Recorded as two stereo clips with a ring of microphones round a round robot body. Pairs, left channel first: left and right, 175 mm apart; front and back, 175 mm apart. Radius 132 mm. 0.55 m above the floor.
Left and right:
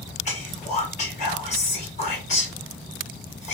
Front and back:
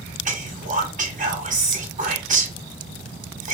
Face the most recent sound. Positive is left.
turn(degrees=140)